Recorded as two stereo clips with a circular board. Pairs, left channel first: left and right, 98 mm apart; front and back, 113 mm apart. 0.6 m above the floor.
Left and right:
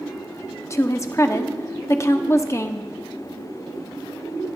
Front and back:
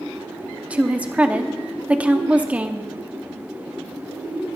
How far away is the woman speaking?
About 0.7 m.